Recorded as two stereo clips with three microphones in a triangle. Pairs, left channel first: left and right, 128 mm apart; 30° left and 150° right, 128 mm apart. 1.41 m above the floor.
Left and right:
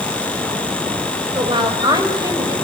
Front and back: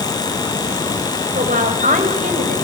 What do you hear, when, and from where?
1.4 s a woman speaking: 145° right, 5.5 m; by 2.5 s 155° right, 6 m